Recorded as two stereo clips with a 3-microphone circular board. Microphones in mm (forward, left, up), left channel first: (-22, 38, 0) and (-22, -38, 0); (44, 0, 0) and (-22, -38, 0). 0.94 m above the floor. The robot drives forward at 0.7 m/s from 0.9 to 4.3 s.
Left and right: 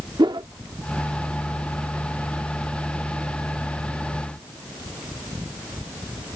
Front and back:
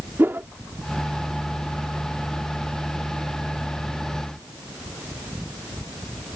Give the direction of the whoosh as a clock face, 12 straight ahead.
3 o'clock.